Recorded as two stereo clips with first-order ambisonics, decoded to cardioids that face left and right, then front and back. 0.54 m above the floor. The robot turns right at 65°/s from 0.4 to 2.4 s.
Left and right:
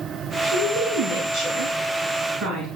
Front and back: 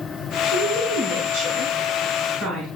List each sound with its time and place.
0.4 s a woman speaking: 95° left, 4.5 m; by 2.7 s 140° right, 4.5 m